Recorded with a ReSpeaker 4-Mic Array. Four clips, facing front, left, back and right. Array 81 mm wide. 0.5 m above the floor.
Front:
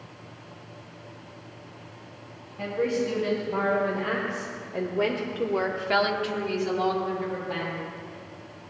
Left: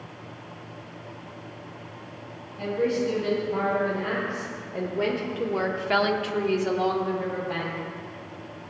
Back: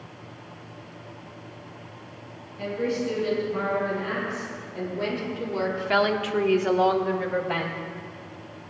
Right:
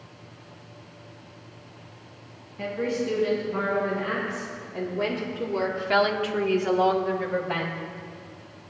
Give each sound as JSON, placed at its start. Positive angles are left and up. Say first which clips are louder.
{"t": 2.6, "sound": "a woman speaking", "louder": "left 3 dB, front 1 dB", "azimuth_deg": 25, "distance_m": 5.0}